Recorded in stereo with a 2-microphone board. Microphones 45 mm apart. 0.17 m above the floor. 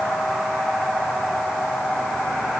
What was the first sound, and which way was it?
Only background noise.